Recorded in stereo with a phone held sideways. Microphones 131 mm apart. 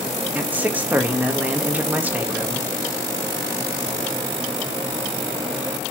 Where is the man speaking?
10° right (ahead or behind), 1.6 m.